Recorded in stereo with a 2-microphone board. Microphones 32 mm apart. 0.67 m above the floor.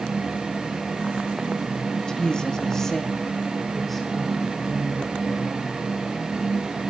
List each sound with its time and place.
2.0 s a woman speaking: 25° left (ahead or behind), 0.9 m; by 5.7 s centre (ahead or behind), 3.5 m